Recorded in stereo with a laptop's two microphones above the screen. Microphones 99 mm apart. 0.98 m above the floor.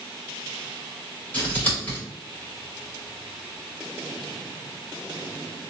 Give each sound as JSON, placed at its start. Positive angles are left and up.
{"t": 1.3, "sound": "scissors", "side_deg": 15, "distance_m": 1.8}